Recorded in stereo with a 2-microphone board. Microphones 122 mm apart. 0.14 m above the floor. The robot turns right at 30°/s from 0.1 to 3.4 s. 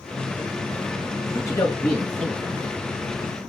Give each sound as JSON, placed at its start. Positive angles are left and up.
{"t": 1.3, "sound": "a man speaking", "azimuth_deg": 145, "distance_m": 1.7}